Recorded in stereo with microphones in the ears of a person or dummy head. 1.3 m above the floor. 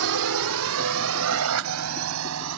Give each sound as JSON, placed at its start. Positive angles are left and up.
{"t": 0.0, "sound": "a drone", "side_deg": -75}